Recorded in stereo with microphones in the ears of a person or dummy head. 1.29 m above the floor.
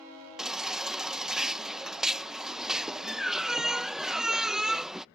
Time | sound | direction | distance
0.4 | a baby crying | 5° right (ahead or behind) | ?